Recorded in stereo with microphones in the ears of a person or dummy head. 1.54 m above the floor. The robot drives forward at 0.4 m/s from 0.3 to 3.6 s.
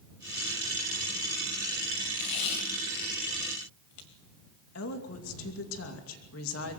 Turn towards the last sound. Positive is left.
turn(degrees=80)